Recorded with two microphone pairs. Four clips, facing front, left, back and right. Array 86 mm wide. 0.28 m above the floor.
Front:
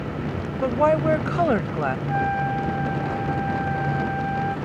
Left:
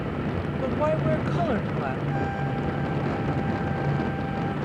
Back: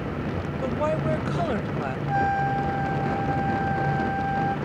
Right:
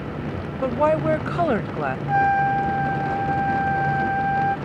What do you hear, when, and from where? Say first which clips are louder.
0.6 s a woman speaking: right 6 dB, front 7 dB; 45° right
2.1 s a trumpet: right 10 dB, back 4 dB; 100° right